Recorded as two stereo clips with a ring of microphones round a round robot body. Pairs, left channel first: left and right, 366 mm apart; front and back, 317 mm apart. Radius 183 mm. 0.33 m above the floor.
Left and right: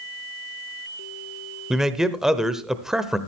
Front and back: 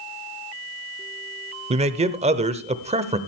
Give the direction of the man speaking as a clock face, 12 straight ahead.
6 o'clock.